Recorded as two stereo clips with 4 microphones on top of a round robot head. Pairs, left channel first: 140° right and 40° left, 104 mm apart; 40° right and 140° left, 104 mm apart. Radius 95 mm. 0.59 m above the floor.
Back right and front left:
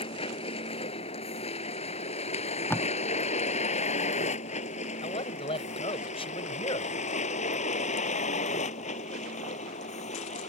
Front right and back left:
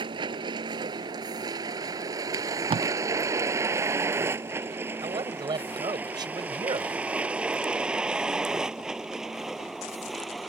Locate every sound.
0.0 s a vehicle: 175° right; by 10.5 s 130° right
2.3 s tape being pulled: 155° left
5.0 s a man speaking: 170° right